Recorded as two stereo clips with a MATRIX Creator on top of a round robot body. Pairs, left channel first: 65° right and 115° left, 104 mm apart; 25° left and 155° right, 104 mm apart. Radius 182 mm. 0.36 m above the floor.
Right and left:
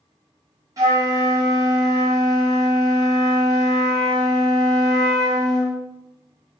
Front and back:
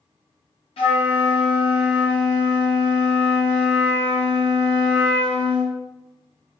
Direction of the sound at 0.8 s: 55° left.